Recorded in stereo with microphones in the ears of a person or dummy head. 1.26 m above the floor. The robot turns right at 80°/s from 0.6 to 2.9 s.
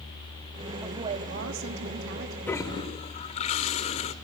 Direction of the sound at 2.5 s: 10° left.